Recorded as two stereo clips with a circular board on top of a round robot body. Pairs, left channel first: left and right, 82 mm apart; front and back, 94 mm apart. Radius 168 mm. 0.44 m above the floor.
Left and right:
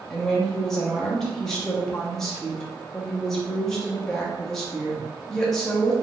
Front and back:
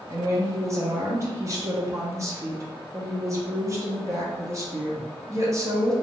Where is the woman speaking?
170° left, 1.1 m.